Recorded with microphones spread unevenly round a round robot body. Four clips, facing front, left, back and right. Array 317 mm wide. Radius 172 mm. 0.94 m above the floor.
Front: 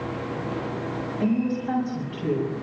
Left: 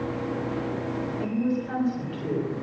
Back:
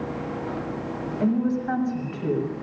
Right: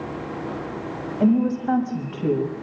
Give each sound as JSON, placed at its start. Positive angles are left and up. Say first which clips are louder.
{"t": 1.2, "sound": "a woman speaking", "louder": "right 9 dB, back 1 dB", "azimuth_deg": -100, "distance_m": 7.0}